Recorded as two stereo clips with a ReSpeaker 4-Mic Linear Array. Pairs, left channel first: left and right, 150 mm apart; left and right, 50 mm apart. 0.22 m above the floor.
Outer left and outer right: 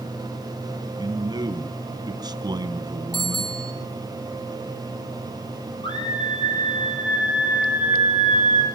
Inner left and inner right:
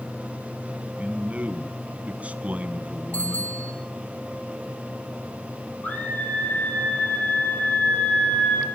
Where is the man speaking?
25° right (ahead or behind), 2.5 m.